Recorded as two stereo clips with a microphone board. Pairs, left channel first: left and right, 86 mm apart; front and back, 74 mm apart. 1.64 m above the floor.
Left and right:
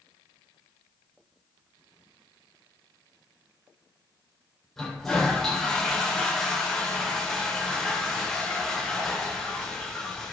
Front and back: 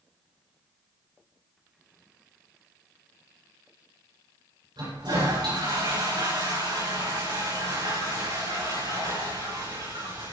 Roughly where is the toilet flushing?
Behind.